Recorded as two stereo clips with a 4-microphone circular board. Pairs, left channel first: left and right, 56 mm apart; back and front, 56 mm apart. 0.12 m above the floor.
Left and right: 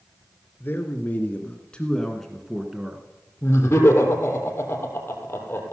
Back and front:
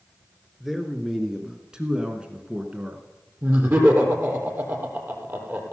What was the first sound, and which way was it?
A man speaking, 85° left.